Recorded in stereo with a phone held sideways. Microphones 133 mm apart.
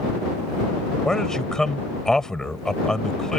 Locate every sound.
1.1 s a man speaking: 5° left (ahead or behind)